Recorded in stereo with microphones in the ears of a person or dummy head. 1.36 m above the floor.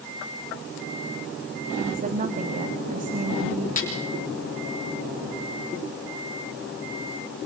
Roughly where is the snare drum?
Left.